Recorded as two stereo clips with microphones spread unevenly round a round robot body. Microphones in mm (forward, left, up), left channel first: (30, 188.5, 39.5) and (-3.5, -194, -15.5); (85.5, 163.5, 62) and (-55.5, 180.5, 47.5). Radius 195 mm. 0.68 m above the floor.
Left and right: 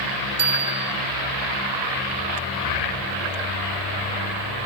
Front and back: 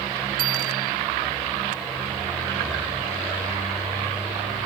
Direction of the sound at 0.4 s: 160° right.